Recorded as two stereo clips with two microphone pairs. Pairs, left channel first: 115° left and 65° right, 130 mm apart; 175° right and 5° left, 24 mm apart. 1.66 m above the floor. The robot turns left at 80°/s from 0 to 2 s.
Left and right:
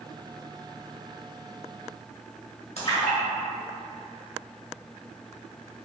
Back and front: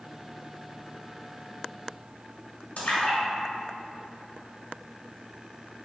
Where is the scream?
I don't hear a scream.